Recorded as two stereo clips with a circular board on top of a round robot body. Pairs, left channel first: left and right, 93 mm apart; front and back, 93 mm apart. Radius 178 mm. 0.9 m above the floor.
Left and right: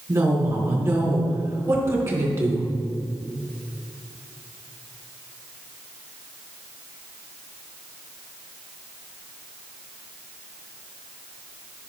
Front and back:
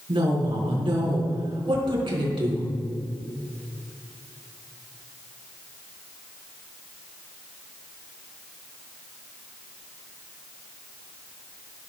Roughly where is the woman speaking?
Behind right.